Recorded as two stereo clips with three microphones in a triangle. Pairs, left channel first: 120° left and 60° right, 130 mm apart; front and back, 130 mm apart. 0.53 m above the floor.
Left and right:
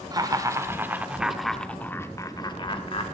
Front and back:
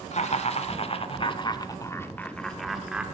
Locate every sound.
0.1 s laughter: 5° right, 1.4 m; by 3.0 s 100° left, 1.2 m